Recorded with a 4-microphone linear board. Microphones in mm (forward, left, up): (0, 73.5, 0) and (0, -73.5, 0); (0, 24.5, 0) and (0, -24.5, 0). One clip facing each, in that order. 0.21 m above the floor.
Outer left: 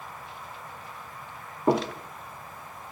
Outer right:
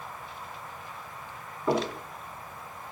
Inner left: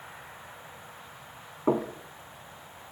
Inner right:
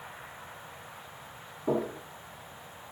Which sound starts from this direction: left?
Knocking, at 1.7 s.